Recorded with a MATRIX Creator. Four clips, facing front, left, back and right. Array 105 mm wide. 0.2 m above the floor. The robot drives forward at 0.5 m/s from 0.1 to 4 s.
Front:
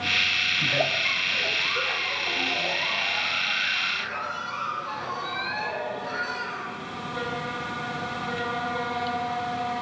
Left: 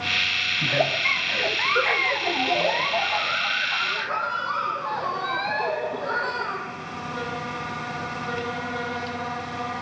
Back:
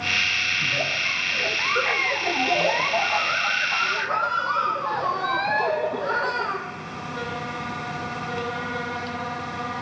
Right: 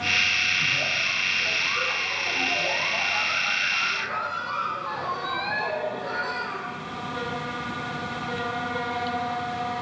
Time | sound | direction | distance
0.6 | a giggle | 70° left | 0.7 m